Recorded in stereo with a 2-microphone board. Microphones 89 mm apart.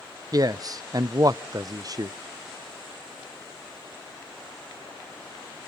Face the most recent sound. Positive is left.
turn(degrees=-45)  # may be behind; listen again after turning